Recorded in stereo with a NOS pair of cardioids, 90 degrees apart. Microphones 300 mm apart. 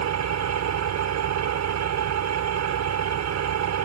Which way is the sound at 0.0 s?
65° right.